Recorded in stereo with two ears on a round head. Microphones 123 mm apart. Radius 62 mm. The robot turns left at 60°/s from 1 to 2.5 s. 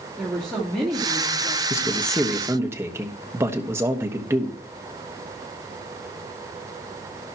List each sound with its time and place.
0.2 s a woman speaking: 175° left, 2.5 m; by 1.6 s 140° left, 2.5 m
1.7 s a man speaking: 30° left, 1.2 m; by 4.6 s 20° right, 1.2 m